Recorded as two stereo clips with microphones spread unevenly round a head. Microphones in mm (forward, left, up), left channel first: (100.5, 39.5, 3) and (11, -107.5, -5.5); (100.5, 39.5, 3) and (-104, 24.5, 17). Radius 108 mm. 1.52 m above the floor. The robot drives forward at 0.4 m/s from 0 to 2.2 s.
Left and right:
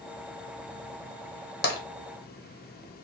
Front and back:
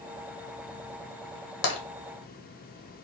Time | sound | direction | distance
1.6 | tapping | 35° left | 1.0 m